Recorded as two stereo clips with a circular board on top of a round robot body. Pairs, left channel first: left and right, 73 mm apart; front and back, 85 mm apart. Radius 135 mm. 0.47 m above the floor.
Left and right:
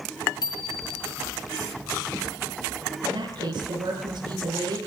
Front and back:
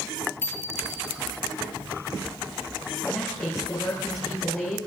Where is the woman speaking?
70° right, 8 m.